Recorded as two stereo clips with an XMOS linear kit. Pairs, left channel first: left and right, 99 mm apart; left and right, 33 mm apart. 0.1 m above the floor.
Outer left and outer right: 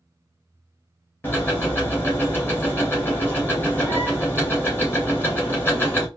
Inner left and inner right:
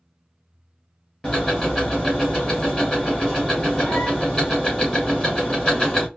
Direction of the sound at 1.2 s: 20° left (ahead or behind).